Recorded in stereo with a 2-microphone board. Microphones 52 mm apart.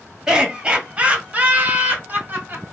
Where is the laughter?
15° right (ahead or behind), 1.4 m; by 2.6 s 45° right (ahead or behind), 1.4 m.